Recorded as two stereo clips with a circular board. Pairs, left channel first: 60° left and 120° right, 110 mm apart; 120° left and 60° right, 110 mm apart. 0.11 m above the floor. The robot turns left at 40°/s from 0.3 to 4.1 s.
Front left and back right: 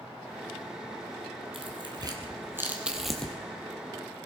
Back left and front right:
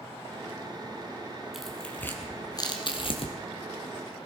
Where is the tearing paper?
150° right, 2 m; by 3.4 s 140° left, 2 m.